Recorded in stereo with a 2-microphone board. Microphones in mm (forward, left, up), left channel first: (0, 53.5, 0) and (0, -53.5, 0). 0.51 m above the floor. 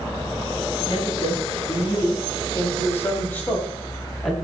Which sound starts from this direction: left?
A woman speaking, at 0.9 s.